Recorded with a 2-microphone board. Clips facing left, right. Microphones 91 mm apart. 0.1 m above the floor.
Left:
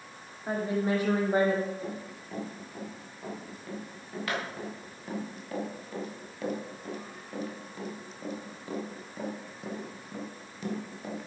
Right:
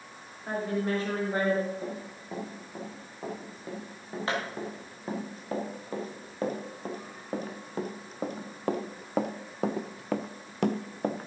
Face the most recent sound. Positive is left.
turn(degrees=-45)  # may be behind; listen again after turning